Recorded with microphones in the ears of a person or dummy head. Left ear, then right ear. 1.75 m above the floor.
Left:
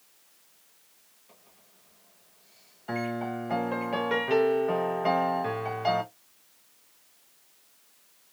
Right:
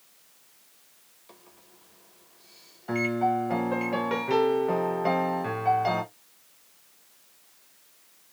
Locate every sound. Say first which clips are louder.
1.3 s a microwave: right 6 dB; 25° right (ahead or behind), 1.5 m
2.9 s a piano: right 7 dB; 10° left (ahead or behind), 0.6 m